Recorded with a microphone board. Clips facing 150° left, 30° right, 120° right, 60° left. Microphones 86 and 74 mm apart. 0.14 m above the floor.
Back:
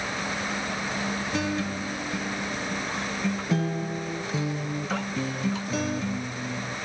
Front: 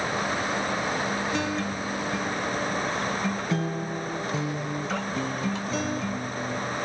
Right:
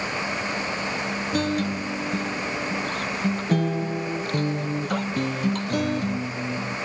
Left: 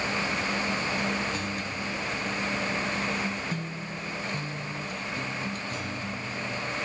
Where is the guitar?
120° right.